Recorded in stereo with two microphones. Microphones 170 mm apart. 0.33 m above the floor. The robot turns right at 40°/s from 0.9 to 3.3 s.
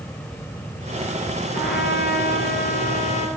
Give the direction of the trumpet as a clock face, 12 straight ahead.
10 o'clock.